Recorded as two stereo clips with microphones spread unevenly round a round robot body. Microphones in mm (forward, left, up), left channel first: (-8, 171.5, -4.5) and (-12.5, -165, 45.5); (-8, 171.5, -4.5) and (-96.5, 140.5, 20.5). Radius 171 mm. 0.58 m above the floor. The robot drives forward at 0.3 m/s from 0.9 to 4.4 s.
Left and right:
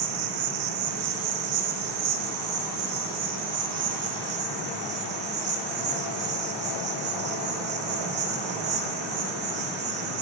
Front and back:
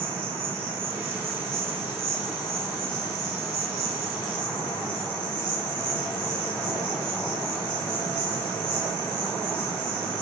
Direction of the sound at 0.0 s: 115° right.